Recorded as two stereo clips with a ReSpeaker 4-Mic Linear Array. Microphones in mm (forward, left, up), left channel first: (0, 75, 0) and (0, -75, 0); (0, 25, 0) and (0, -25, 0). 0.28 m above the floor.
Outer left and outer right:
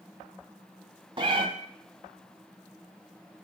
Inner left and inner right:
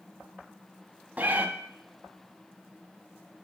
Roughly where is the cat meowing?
Right.